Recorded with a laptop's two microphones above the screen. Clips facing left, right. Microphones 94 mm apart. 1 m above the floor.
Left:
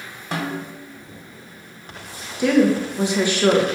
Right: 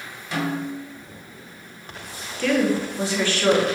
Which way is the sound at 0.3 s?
45° left (ahead or behind).